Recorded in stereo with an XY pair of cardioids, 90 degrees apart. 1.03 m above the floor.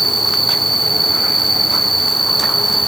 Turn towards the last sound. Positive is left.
turn(degrees=-10)